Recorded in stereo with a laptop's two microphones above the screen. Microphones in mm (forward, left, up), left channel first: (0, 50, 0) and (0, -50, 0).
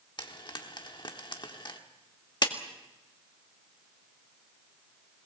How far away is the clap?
About 1.8 m.